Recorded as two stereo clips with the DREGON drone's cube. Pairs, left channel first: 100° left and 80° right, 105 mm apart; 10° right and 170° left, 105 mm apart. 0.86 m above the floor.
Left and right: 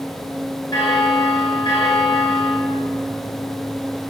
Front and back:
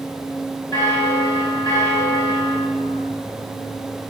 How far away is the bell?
About 4.5 m.